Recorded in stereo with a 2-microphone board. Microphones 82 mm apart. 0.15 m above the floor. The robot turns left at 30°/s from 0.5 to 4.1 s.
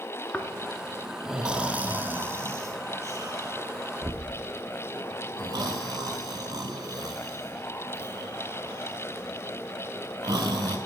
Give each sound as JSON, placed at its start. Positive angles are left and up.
{"t": 0.3, "sound": "snoring", "side_deg": 15, "distance_m": 0.6}